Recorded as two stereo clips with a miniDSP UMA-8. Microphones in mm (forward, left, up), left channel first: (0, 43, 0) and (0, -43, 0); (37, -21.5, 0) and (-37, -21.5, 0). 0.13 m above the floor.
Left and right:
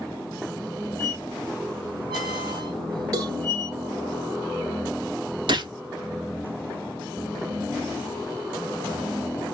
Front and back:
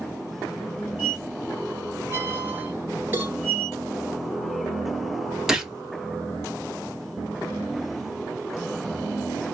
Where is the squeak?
120° right, 1.5 m.